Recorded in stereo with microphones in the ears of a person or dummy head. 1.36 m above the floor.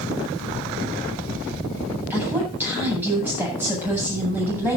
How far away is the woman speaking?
About 8.5 m.